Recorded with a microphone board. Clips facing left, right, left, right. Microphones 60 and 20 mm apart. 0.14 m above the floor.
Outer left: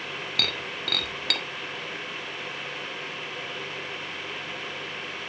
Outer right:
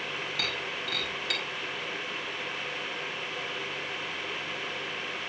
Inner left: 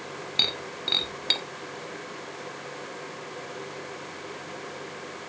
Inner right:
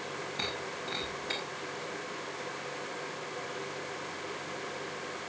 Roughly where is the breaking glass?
Left.